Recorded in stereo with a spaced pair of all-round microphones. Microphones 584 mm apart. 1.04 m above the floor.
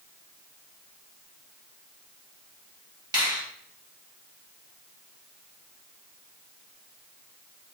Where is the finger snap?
5° right (ahead or behind), 1.2 m.